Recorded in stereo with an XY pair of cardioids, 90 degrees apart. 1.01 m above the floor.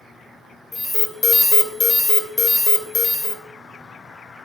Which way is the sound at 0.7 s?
30° left.